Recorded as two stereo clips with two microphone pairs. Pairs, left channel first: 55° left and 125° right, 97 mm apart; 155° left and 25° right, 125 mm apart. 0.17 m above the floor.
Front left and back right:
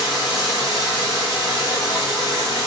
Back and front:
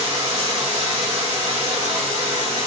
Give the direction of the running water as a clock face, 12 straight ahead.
12 o'clock.